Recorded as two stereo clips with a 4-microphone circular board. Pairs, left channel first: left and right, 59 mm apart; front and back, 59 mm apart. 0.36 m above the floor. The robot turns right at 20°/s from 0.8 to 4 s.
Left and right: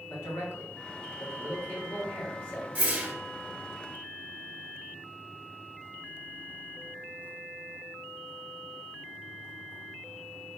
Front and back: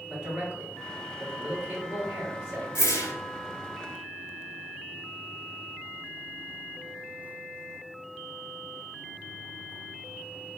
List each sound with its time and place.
0.1 s a man speaking: 105° left, 1.8 m; by 2.6 s 140° left, 1.8 m
2.8 s a whoosh: 30° right, 0.8 m; by 3.1 s 25° right, 0.8 m